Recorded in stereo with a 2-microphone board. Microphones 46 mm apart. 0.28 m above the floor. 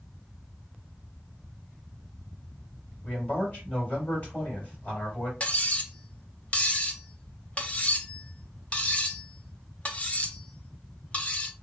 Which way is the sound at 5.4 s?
25° left (ahead or behind).